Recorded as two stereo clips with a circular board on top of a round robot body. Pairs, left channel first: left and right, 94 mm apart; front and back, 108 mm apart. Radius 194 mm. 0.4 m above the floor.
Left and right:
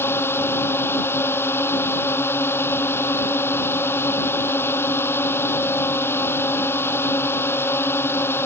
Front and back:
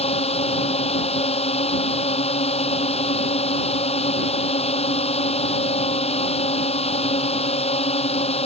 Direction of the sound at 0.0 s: 25° left.